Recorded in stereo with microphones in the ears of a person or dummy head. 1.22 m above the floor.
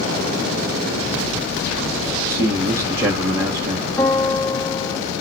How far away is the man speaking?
About 0.5 m.